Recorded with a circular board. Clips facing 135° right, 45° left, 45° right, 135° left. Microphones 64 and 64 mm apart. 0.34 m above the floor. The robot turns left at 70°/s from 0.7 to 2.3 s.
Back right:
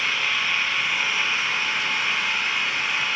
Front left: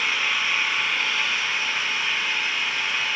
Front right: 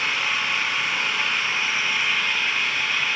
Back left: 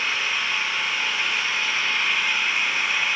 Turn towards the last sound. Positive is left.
turn(degrees=-150)